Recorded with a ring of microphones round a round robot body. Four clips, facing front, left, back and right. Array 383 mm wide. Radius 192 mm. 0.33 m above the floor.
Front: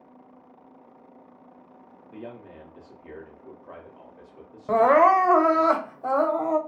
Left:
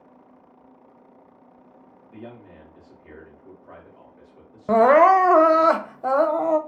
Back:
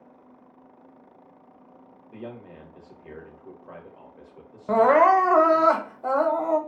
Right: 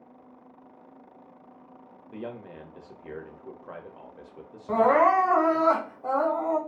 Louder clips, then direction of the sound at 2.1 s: Right 3 dB, back 1 dB; 90° right.